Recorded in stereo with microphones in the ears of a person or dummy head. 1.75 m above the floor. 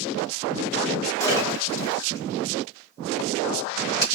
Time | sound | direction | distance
1.2 | a splash | 15° left (ahead or behind) | 1.0 m